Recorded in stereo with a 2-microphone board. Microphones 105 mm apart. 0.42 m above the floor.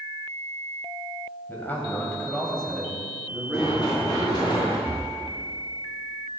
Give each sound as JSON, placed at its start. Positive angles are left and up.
{"t": 1.5, "sound": "a man speaking", "side_deg": 20, "distance_m": 2.5}
{"t": 3.5, "sound": "running footsteps", "side_deg": 40, "distance_m": 5.0}
{"t": 4.9, "sound": "breathing", "side_deg": -35, "distance_m": 0.9}